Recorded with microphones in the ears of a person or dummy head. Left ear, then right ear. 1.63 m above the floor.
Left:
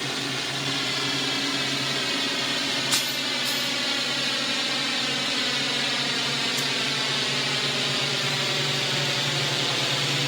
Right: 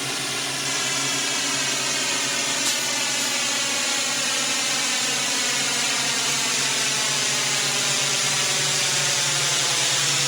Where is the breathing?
I don't hear breathing.